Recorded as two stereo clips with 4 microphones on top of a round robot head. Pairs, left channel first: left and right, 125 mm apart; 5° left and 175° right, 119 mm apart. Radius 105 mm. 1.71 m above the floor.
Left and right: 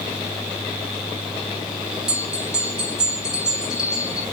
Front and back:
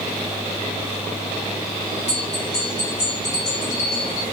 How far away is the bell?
About 2.5 m.